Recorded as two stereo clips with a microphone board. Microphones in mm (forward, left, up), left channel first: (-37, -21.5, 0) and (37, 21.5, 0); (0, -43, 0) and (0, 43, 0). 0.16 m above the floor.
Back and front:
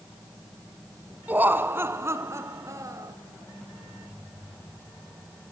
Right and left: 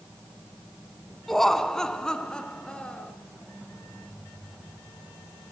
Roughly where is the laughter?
Ahead.